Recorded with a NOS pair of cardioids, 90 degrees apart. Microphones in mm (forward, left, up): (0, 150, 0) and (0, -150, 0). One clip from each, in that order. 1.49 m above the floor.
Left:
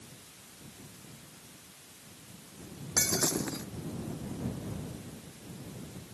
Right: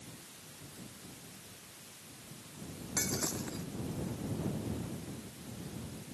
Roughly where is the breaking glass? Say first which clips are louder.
Left 7 dB; ahead left.